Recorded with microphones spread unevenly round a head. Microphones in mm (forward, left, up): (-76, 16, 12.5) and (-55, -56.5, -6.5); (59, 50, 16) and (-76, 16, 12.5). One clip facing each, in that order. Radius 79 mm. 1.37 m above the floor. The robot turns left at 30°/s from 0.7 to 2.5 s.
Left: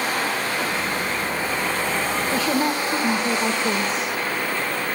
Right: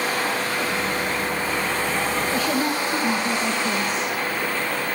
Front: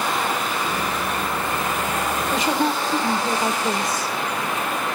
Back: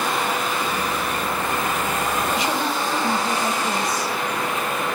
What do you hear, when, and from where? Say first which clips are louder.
2.3 s a woman speaking: left 1 dB, front 2 dB; 85° left, 2 m; by 4.2 s 75° left, 2 m